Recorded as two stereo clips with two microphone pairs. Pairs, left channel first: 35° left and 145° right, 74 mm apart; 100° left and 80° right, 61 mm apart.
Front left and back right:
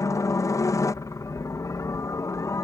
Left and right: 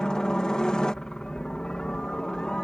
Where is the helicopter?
25° left.